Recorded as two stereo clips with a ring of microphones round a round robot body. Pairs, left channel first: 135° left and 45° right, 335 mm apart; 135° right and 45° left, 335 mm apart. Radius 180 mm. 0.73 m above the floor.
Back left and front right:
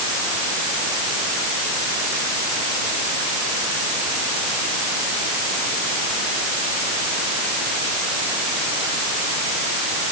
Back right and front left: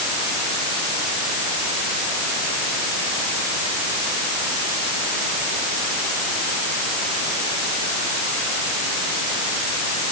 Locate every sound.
Only background noise.